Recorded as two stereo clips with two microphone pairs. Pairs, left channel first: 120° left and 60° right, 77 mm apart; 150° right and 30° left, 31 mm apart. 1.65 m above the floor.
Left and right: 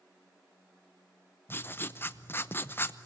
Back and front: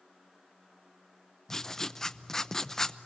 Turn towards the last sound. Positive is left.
turn(degrees=145)